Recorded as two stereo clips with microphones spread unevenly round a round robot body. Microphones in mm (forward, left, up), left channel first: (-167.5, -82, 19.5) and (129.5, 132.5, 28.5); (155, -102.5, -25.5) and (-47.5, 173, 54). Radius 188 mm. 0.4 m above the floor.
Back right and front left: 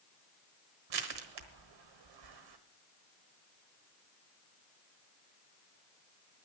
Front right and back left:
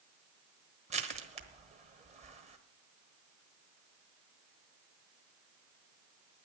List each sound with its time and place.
0.9 s crushing: 50° left, 1.2 m